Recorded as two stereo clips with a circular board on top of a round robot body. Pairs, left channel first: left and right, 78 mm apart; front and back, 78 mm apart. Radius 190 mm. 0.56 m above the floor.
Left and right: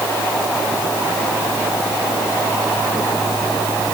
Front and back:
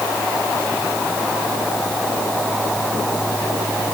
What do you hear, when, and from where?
Only background noise.